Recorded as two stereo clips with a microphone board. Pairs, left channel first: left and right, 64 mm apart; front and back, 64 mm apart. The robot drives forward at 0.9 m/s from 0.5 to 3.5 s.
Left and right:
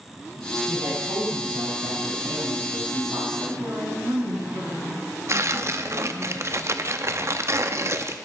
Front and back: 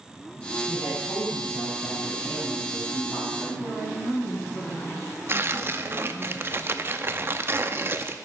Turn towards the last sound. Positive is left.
turn(degrees=-130)